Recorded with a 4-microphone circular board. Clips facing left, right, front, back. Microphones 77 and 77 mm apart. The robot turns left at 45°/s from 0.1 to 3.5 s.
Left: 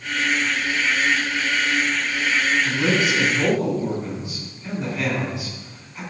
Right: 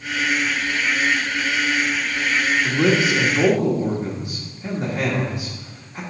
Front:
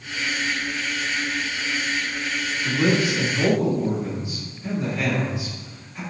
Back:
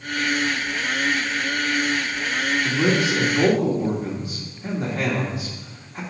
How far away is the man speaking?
About 2.5 m.